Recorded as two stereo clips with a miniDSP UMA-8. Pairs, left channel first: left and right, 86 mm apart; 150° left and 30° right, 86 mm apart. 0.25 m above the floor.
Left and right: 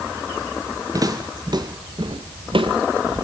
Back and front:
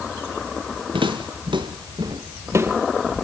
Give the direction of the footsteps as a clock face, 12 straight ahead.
1 o'clock.